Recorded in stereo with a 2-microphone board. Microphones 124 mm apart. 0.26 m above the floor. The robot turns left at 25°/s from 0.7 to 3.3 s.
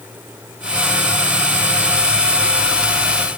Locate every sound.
Only background noise.